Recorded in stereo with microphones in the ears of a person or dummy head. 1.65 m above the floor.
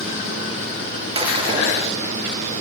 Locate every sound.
1.1 s breaking glass: 25° right (ahead or behind), 7 m